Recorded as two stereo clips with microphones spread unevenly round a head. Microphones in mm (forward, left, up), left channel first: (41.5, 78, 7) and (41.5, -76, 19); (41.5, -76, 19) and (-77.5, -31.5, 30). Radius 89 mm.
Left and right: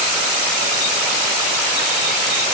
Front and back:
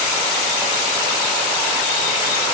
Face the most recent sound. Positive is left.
No sound to turn to.